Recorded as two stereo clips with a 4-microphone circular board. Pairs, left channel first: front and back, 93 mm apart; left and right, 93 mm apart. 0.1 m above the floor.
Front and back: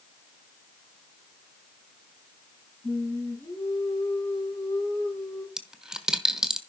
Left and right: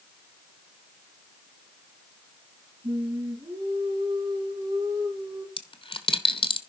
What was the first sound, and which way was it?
Singing, 65° right.